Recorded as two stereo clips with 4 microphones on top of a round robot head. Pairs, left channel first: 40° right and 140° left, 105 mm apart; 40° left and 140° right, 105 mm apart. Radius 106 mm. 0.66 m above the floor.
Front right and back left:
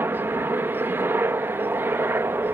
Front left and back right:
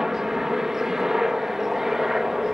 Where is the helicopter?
145° left.